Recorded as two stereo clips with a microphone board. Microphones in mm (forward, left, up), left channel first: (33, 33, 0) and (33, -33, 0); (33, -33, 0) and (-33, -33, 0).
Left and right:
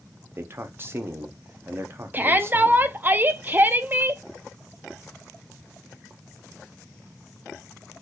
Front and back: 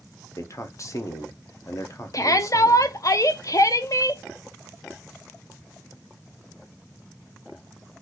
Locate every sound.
0.4 s a man speaking: 35° right, 0.7 m
2.1 s a shout: 30° right, 0.5 m